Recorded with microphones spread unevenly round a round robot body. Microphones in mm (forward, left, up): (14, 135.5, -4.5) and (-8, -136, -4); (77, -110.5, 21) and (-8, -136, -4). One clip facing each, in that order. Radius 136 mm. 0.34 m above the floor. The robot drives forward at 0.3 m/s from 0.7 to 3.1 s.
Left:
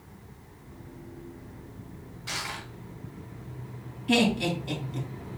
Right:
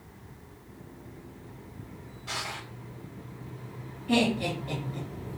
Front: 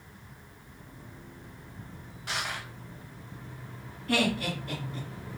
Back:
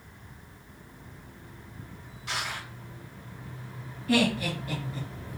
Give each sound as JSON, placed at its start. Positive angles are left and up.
{"t": 2.3, "sound": "crushing", "azimuth_deg": 40, "distance_m": 1.4}
{"t": 4.1, "sound": "laughter", "azimuth_deg": 135, "distance_m": 3.0}